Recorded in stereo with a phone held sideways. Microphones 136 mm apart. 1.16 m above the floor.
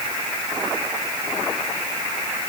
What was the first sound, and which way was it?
Only background noise.